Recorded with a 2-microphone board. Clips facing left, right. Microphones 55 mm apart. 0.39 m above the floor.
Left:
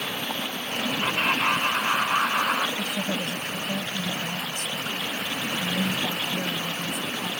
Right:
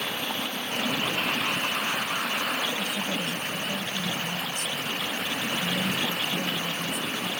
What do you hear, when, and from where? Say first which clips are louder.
1.0 s laughter: left 4 dB; 55° left (ahead or behind); by 2.7 s 70° left (ahead or behind)
2.8 s a woman speaking: left 1 dB; 55° left (ahead or behind)